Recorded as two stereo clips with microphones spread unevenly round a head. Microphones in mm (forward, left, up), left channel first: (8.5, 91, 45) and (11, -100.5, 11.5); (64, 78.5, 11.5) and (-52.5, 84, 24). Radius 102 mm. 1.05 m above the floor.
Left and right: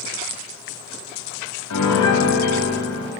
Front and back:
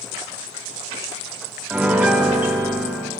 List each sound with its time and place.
1.7 s a piano: 100° left, 0.8 m